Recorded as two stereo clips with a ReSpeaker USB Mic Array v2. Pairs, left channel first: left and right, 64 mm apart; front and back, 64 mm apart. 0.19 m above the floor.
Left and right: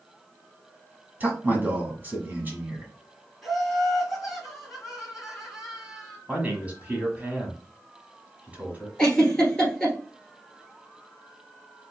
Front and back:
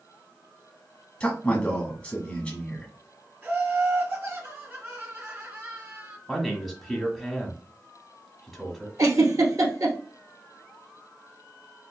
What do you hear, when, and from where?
1.2 s a man speaking: 60° right, 1.2 m
3.4 s laughter: 175° right, 1.9 m
6.3 s a man speaking: 90° right, 1.2 m
9.0 s a giggle: 170° left, 1.3 m